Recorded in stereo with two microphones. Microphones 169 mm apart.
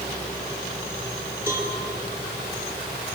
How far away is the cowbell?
About 7 m.